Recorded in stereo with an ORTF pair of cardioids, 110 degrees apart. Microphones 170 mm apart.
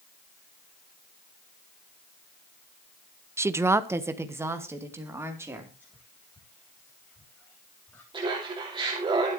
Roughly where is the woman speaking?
Ahead.